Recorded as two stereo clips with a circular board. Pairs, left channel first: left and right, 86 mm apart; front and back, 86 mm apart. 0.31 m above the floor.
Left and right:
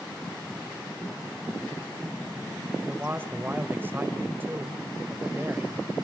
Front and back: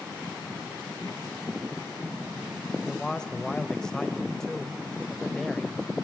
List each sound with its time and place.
2.9 s a man speaking: 70° right, 1.5 m